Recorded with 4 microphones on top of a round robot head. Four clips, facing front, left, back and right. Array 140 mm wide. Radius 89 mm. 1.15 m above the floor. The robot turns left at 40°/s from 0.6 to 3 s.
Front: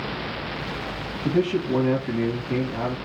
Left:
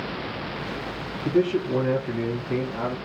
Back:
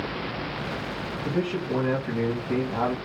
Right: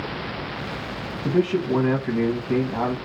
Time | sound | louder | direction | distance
1.2 | a man speaking | right 1 dB, front 6 dB | 60° right | 1.1 m